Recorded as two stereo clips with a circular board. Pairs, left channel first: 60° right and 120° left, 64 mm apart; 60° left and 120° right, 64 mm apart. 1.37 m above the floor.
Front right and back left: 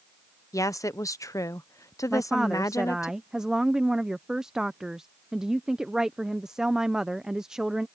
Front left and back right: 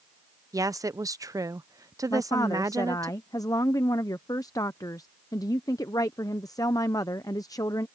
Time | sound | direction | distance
0.5 | a woman speaking | 95° right | ?
2.1 | a woman speaking | 40° left | ?